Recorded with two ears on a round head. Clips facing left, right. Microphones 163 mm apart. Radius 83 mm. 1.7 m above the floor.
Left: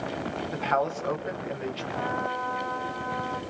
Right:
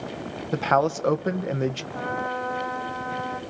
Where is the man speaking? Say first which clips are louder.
Right 6 dB; 55° right (ahead or behind), 1.7 m.